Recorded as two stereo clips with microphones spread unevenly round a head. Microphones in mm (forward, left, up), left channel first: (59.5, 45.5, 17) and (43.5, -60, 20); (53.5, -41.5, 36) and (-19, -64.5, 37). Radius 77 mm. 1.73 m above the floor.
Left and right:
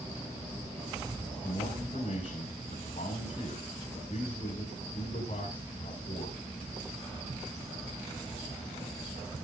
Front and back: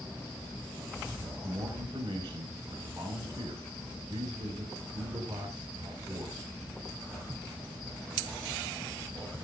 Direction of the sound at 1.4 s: 130° left.